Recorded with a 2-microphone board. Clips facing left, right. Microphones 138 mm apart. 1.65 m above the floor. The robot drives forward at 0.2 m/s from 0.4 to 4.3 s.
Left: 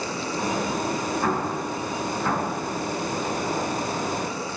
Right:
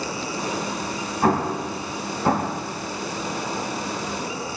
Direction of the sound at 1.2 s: 50° right (ahead or behind).